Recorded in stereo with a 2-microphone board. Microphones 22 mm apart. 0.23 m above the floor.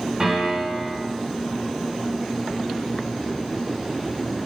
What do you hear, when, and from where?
0.2 s a piano: 40° right (ahead or behind), 1.0 m